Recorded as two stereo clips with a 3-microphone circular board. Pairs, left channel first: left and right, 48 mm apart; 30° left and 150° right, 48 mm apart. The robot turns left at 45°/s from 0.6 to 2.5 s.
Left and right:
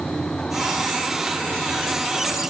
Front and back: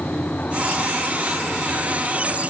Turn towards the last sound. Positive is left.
No sound to turn to.